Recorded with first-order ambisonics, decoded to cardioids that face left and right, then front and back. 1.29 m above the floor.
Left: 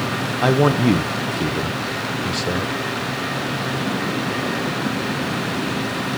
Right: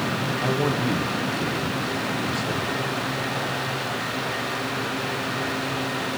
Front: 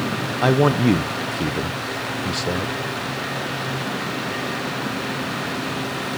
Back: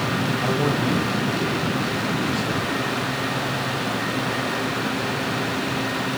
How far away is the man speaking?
About 0.9 m.